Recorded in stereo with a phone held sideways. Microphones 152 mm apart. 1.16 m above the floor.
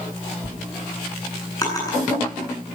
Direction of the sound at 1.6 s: 25° left (ahead or behind).